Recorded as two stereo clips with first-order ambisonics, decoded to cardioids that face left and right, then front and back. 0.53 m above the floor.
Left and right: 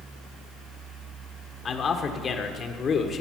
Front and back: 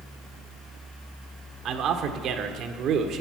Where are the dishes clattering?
I don't hear dishes clattering.